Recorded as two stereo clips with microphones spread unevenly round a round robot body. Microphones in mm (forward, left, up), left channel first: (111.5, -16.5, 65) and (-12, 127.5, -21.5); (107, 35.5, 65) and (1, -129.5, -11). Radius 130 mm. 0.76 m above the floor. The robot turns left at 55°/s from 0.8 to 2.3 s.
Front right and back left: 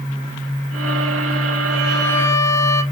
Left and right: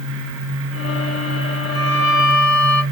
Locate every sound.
1.7 s a violin: 55° left, 4 m; by 2.8 s 25° left, 4 m